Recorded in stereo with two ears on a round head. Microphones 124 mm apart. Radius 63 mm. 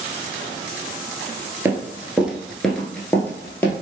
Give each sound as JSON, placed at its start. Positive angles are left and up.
{"t": 1.6, "sound": "running footsteps", "side_deg": -15, "distance_m": 0.8}